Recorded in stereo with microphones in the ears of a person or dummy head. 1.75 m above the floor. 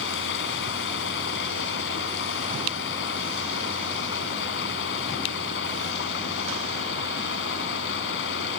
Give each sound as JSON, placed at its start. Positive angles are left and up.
{"t": 0.0, "sound": "running water", "side_deg": 60}